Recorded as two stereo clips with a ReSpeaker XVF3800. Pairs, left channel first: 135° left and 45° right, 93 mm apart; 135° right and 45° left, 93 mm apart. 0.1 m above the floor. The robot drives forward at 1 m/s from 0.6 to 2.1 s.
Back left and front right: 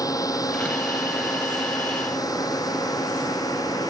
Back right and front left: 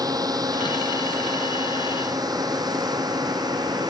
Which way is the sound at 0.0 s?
90° left.